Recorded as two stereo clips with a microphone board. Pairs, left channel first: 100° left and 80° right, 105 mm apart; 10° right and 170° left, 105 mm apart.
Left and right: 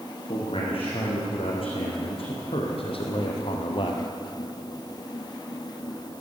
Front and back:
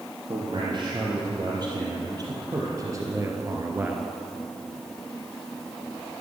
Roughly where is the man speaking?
Behind left.